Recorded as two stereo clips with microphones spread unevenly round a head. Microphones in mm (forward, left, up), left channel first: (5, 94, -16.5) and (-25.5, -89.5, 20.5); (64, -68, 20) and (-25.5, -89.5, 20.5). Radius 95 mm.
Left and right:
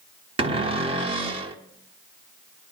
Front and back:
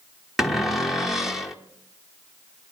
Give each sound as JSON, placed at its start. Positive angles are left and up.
{"t": 0.4, "sound": "a cupboard door", "azimuth_deg": -85, "distance_m": 1.3}